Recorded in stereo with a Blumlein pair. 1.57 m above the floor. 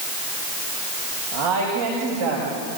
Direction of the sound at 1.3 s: 60° right.